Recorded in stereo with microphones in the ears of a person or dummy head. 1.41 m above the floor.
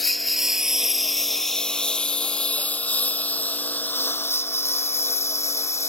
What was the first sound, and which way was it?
A lawn mower, 5° right (ahead or behind).